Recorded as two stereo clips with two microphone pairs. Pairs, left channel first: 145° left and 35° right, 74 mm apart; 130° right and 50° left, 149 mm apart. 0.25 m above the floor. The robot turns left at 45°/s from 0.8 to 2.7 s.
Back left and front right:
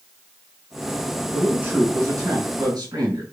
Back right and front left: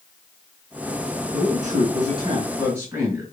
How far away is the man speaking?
About 3 m.